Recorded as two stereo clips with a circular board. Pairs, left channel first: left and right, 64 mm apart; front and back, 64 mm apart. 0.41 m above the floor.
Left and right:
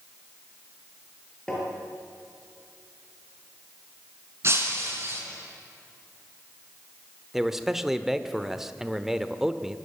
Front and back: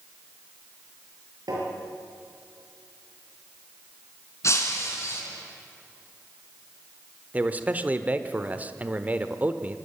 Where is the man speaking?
165° right, 1.0 m.